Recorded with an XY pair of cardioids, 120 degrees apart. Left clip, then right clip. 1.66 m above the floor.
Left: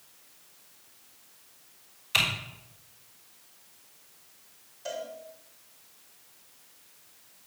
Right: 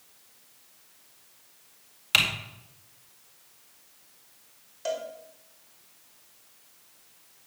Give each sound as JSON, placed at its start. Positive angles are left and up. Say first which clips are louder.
{"t": 2.1, "sound": "typing on a keyboard", "louder": "right 3 dB", "azimuth_deg": -65, "distance_m": 4.0}
{"t": 4.8, "sound": "a cowbell", "louder": "right 4 dB", "azimuth_deg": -60, "distance_m": 4.0}